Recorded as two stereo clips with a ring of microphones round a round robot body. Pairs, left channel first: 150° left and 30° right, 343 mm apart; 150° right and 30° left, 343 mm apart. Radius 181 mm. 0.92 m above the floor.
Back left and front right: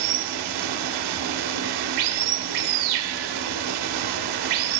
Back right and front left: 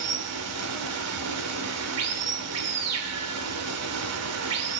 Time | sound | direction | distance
0.0 | running water | 15° right | 0.7 m